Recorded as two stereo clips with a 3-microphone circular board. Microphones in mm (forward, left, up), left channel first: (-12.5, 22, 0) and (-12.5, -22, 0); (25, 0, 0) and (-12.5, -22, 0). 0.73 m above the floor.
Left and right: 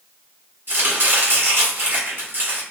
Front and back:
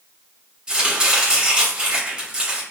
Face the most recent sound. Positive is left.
turn(degrees=-85)